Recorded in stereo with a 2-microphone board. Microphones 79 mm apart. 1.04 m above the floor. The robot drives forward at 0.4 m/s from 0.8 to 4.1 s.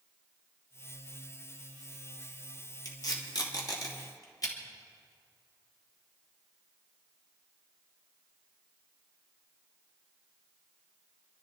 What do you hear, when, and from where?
2.9 s tape being pulled: 60° left (ahead or behind), 2.5 m; by 4.5 s 50° left (ahead or behind), 2.5 m